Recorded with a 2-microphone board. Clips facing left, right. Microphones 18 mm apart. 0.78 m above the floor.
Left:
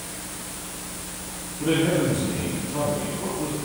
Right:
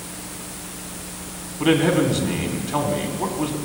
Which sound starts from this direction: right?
A man speaking, at 1.6 s.